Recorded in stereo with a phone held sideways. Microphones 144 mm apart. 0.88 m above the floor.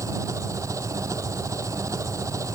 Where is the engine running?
20° right (ahead or behind).